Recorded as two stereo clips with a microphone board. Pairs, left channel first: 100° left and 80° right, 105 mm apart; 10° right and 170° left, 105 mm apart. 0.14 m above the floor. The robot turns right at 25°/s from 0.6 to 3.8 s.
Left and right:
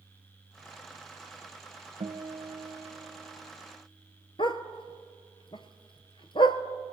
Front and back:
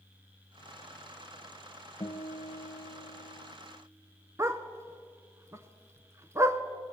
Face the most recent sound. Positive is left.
turn(degrees=115)